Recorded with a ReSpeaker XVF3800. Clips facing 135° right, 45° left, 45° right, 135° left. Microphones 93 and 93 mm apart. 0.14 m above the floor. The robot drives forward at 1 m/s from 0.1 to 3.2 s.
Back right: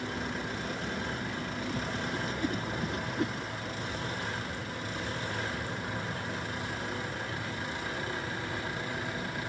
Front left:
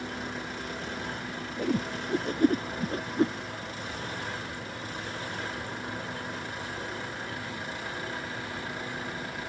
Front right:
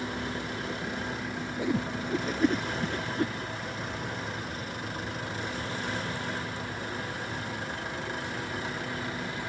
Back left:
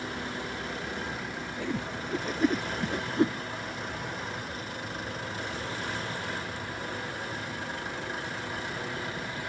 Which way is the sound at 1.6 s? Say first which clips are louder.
Front left 8 dB, front right 4 dB; 30° left.